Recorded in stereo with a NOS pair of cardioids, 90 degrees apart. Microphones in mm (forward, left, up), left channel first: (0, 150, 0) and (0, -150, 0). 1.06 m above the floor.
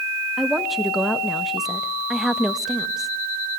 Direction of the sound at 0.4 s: Straight ahead.